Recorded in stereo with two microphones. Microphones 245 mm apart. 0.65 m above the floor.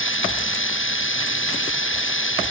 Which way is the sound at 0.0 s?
55° left (ahead or behind).